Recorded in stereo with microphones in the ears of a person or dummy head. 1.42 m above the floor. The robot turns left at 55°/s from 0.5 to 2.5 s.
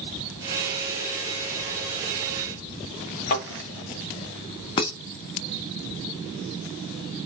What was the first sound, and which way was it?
A thud, 35° left (ahead or behind).